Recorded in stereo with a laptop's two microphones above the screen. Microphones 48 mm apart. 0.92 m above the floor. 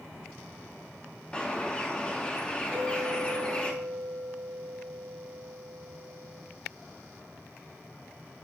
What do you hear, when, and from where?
1.3 s a bird: 15° left (ahead or behind), 0.7 m
2.7 s a clink: 10° right (ahead or behind), 3.5 m